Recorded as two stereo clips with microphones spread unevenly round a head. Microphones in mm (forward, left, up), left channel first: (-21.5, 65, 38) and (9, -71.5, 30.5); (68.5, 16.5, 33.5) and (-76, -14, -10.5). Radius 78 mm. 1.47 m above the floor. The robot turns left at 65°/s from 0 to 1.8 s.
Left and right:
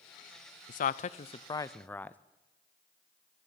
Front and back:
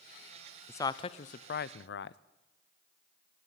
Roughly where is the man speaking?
Left.